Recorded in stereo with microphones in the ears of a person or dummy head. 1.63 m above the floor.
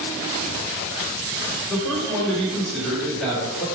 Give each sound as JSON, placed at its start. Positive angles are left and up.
{"t": 1.7, "sound": "a man speaking", "side_deg": 0, "distance_m": 1.3}